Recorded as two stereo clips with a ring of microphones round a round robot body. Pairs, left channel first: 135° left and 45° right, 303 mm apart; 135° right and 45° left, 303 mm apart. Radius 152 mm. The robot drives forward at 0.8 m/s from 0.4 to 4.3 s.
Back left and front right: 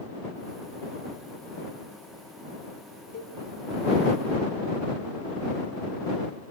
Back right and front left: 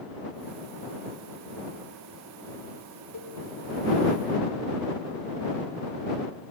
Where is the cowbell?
170° right, 3.5 m.